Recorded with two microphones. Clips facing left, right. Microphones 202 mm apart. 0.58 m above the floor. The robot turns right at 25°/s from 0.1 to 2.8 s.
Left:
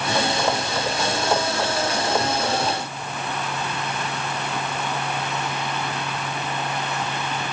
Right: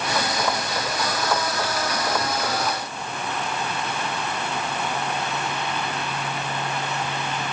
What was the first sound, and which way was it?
Only background noise.